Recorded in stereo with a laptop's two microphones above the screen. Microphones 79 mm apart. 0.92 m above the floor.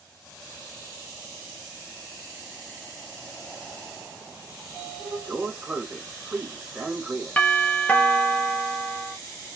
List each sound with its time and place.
4.6 s a sliding door: 10° right (ahead or behind), 1.3 m
7.4 s a doorbell: 20° left (ahead or behind), 0.7 m